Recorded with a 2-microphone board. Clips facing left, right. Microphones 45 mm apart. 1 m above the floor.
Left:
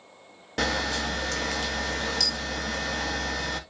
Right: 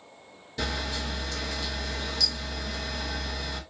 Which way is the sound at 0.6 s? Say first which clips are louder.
Left 5 dB; 55° left (ahead or behind).